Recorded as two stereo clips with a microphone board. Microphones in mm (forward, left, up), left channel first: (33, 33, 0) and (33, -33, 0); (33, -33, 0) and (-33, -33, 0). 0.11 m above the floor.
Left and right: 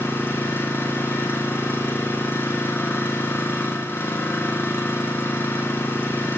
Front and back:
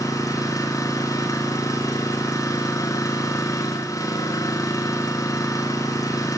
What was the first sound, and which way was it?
An engine running, 30° left.